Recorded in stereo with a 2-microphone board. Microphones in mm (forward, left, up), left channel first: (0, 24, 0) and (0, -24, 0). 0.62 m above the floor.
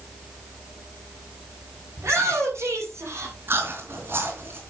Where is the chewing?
55° right (ahead or behind), 3.5 m.